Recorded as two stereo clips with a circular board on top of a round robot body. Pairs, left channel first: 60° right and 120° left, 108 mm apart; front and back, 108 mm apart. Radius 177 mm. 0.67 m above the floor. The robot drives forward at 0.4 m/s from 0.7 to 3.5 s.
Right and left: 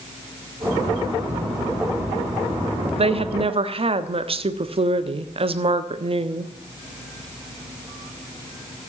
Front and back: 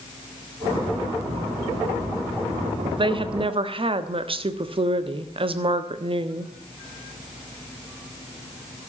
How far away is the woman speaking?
About 1.2 m.